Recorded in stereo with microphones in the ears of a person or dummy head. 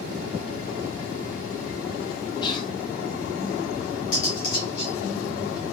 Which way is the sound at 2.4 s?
25° left (ahead or behind).